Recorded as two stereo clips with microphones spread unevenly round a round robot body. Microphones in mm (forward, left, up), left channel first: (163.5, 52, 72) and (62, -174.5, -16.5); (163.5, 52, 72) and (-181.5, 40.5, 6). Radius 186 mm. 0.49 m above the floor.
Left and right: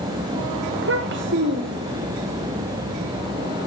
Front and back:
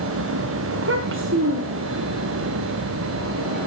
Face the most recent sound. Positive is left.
turn(degrees=-135)